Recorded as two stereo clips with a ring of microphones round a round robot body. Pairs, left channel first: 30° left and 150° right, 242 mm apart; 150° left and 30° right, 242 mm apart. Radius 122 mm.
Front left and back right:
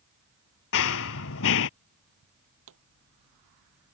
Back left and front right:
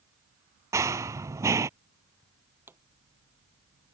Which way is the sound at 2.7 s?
110° right.